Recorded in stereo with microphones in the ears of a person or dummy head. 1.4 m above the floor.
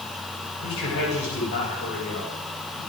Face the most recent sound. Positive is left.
turn(degrees=85)